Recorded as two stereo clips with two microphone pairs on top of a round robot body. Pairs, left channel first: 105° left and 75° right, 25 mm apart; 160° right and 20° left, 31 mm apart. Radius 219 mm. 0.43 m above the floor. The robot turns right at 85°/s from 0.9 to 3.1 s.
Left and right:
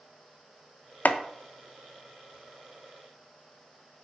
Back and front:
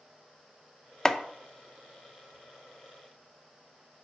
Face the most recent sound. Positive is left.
turn(degrees=-55)